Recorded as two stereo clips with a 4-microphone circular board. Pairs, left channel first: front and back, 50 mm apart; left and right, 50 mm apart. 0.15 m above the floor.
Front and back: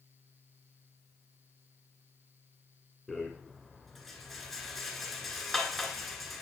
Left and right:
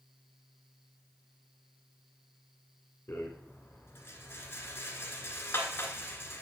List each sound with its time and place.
3.1 s a rattle: 90° left, 1.6 m